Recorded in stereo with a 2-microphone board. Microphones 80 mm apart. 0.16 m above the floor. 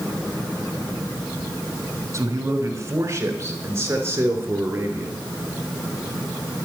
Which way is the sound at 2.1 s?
40° right (ahead or behind).